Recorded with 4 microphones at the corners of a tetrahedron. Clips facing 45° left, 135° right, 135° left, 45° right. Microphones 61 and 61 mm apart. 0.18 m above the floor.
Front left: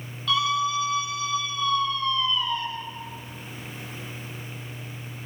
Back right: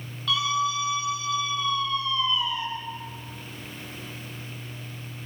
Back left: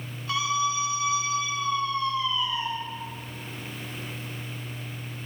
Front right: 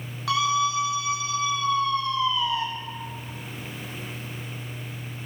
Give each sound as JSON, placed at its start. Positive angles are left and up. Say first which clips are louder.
{"t": 0.3, "sound": "a scream", "louder": "front left 1 dB, front right 3 dB", "azimuth_deg": -45, "distance_m": 8.5}